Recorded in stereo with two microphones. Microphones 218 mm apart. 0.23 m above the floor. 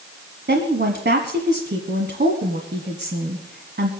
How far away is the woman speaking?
About 1.5 m.